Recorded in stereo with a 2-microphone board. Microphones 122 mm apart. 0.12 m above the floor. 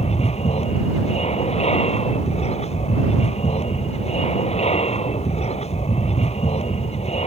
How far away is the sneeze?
No sneeze in this recording.